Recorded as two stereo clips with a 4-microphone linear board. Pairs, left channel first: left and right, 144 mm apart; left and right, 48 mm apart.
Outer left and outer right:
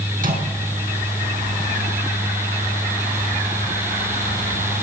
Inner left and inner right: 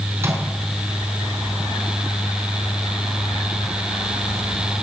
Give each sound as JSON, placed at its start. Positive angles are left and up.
{"t": 0.2, "sound": "a microwave", "side_deg": -70, "distance_m": 4.0}